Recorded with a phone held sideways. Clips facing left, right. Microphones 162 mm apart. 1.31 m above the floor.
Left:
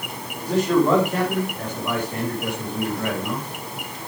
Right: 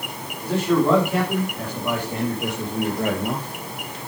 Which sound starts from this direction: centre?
A man speaking, at 0.4 s.